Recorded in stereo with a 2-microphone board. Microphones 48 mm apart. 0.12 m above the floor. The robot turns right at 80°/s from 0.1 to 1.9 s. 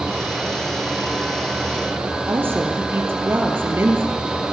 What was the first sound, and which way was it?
A woman speaking, 50° right (ahead or behind).